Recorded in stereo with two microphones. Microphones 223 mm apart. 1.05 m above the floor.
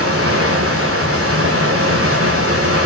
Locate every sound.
0.0 s running water: 65° right (ahead or behind), 3 m